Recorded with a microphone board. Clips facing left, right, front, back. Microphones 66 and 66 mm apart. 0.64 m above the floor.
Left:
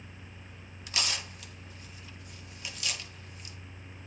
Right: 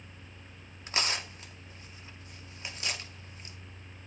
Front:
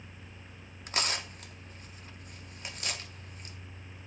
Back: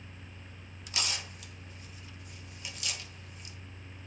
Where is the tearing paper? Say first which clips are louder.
Right 2 dB, front 4 dB; 35° right, 0.6 m.